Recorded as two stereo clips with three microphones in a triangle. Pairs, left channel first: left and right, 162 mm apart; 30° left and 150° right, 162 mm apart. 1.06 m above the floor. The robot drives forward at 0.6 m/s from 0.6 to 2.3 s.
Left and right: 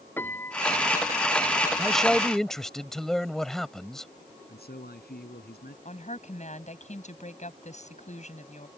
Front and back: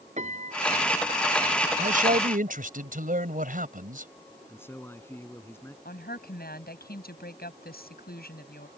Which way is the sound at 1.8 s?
175° left.